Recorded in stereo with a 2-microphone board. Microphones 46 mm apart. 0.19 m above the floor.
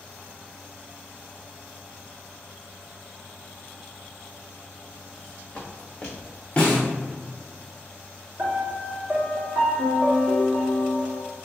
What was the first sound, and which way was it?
Footsteps, 25° left (ahead or behind).